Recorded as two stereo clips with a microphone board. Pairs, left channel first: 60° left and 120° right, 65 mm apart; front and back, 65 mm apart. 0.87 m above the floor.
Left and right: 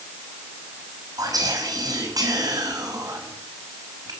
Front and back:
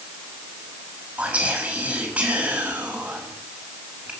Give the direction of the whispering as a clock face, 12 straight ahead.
4 o'clock.